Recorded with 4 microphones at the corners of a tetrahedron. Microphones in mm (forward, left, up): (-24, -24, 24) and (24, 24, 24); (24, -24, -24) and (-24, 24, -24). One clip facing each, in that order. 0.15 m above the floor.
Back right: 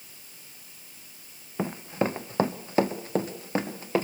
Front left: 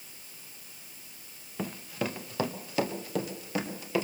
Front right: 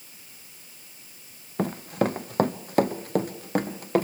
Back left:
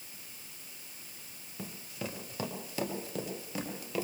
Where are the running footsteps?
70° right, 0.5 m; by 4.0 s 80° right, 3 m.